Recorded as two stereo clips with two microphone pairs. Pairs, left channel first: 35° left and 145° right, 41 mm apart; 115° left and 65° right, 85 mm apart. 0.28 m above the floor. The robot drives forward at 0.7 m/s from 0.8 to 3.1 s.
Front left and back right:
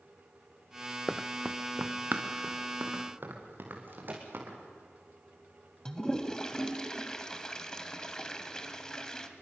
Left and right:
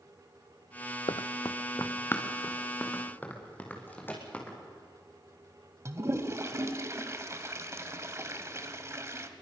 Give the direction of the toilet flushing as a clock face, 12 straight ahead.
1 o'clock.